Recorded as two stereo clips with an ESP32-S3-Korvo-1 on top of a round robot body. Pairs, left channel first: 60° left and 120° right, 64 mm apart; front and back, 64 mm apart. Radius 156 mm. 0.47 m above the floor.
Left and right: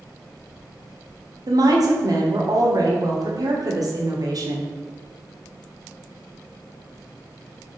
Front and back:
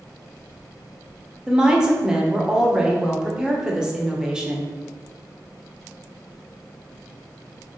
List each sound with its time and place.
1.5 s a woman speaking: 100° right, 1.7 m